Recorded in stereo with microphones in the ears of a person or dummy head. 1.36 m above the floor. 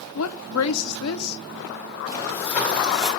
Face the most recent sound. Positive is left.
turn(degrees=5)  # may be behind; listen again after turning